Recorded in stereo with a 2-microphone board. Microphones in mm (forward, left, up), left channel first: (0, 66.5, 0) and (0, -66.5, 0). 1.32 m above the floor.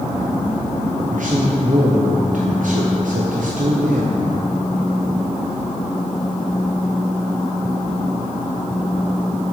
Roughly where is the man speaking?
Right.